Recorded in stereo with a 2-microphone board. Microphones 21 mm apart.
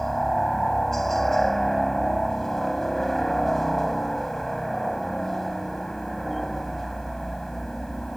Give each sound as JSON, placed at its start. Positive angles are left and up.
{"t": 0.0, "sound": "a helicopter", "side_deg": 20}